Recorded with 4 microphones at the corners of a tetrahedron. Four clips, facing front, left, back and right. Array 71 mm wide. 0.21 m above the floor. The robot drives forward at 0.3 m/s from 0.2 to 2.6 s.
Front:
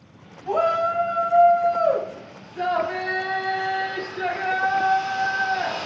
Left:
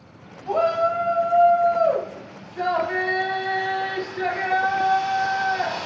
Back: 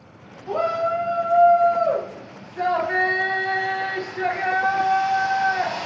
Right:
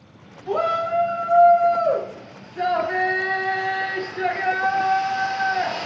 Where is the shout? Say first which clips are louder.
Left 1 dB, front 1 dB; 30° left, 1.0 m; by 5.9 s 140° left, 1.0 m.